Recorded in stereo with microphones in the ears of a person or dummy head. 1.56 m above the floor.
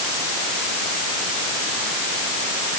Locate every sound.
Only background noise.